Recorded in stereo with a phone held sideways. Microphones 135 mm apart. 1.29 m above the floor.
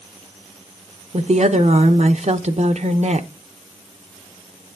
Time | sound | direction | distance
1.1 | a woman speaking | 55° right (ahead or behind) | 0.8 m